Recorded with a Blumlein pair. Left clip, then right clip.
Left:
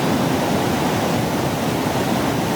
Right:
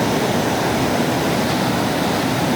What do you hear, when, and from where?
Only background noise.